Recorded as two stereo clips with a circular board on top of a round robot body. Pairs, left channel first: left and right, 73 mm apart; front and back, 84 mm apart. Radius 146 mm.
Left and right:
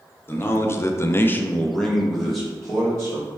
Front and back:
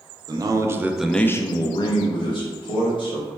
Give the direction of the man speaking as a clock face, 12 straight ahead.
7 o'clock.